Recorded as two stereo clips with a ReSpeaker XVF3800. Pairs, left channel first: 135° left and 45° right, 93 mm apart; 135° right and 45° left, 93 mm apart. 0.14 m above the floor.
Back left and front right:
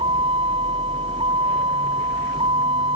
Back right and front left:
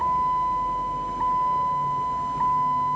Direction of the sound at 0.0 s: 45° right.